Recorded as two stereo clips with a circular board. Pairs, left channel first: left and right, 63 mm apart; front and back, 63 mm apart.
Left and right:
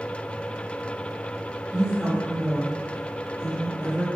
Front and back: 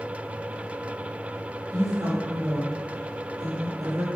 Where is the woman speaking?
165° right, 4.5 m.